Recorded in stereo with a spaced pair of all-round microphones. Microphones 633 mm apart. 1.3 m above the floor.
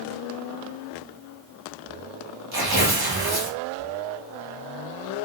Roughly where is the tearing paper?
Right.